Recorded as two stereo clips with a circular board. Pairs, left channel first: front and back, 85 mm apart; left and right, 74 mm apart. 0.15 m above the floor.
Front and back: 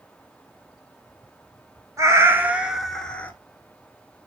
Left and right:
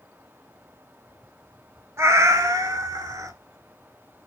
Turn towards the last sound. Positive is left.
turn(degrees=-70)